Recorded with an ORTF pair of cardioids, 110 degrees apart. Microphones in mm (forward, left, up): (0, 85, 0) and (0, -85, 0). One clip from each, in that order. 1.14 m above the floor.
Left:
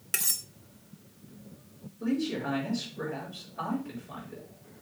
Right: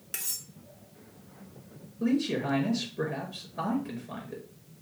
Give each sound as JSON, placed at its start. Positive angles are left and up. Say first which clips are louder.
{"t": 0.1, "sound": "cutlery clinking", "louder": "left 6 dB", "azimuth_deg": 30, "distance_m": 0.8}
{"t": 2.0, "sound": "a man speaking", "louder": "right 2 dB", "azimuth_deg": -40, "distance_m": 5.0}